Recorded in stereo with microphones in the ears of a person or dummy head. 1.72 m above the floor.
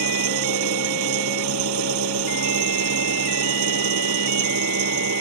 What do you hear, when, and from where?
0.0 s an engine running: 80° right